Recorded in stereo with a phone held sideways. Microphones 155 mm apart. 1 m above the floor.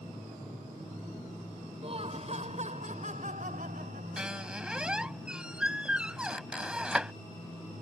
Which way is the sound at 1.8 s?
40° right (ahead or behind).